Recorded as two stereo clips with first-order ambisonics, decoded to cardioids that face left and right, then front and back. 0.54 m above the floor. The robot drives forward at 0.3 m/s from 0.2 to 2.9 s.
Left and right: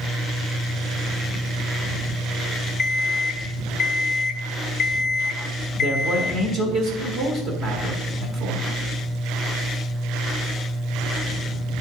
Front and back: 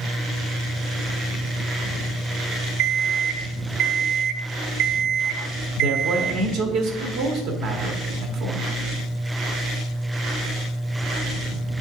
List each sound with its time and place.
2.8 s an alarm clock: 150° left, 0.9 m; by 6.4 s 155° left, 0.9 m
5.8 s a man speaking: 150° right, 1.5 m